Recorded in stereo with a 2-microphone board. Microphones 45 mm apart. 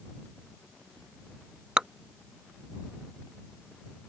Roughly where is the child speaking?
I don't hear a child speaking.